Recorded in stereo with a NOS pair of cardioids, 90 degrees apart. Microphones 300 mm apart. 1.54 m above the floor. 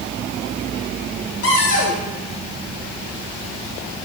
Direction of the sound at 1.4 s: 50° left.